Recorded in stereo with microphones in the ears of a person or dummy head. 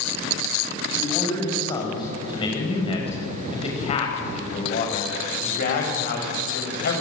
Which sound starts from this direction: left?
A man speaking, at 0.9 s.